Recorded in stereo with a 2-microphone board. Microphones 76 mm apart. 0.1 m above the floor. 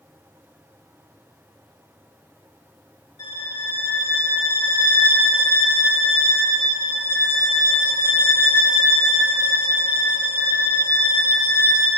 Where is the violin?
75° left (ahead or behind), 6 m.